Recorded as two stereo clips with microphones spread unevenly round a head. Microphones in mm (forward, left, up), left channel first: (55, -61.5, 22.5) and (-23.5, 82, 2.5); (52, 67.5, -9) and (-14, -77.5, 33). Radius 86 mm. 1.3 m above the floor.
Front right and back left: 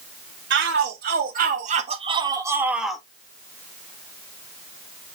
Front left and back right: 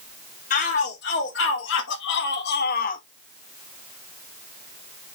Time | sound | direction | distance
0.5 | a shout | 100° left | 2.5 m